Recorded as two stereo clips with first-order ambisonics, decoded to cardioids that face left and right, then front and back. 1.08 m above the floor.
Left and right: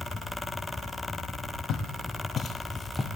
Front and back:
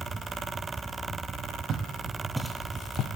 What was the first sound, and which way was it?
Footsteps, 130° left.